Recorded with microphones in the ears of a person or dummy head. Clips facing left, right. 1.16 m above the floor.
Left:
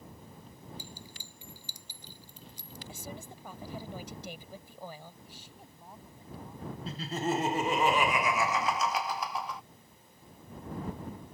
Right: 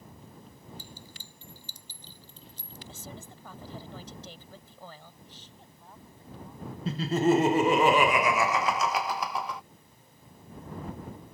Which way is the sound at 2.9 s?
10° left (ahead or behind).